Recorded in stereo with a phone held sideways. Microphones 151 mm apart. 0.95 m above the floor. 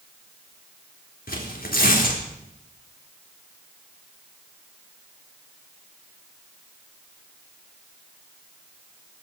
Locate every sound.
1.3 s tearing paper: 75° left (ahead or behind), 3.5 m